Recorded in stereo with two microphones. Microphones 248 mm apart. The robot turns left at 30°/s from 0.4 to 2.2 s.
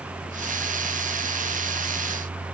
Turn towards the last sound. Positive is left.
No sound to turn to.